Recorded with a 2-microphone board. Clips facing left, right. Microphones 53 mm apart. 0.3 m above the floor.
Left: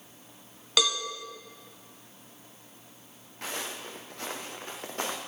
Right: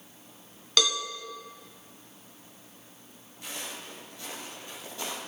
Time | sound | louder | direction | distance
0.8 | a cowbell | even | 10° left (ahead or behind) | 1.6 m
3.4 | footsteps | left 4 dB | 80° left | 3 m